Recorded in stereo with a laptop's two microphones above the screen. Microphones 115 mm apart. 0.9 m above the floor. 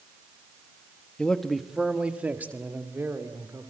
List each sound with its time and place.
1.2 s a man speaking: 10° left (ahead or behind), 1.1 m; by 3.7 s 25° right (ahead or behind), 3 m